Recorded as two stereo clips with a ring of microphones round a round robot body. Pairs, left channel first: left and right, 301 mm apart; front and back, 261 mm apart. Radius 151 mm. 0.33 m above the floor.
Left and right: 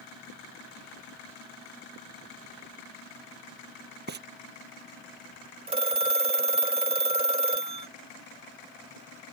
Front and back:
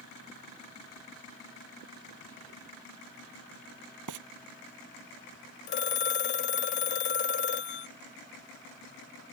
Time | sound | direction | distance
4.1 | frying | 150° right | ?
5.7 | a phone ringing | 25° right | ?